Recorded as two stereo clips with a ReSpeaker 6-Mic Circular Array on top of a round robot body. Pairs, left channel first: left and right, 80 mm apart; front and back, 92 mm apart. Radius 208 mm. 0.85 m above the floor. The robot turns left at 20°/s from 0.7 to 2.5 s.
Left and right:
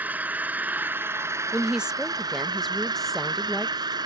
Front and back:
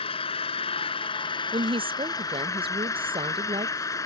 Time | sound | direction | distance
0.0 | an engine running | 20° right | ?
1.5 | a woman speaking | 165° right | ?